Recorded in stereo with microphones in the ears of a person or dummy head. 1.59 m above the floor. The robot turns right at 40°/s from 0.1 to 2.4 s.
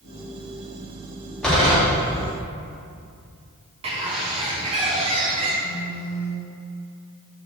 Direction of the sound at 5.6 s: 50° left (ahead or behind).